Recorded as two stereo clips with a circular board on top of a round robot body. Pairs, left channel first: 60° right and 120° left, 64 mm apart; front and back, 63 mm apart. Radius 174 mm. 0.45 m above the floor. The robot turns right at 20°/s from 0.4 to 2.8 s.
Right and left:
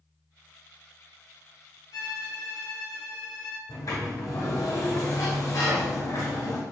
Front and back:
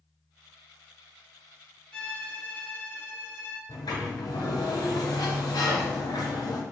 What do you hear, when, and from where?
1.9 s a violin: 75° right, 1.2 m; by 3.7 s 60° right, 1.2 m
3.7 s a sliding door: 25° right, 1.1 m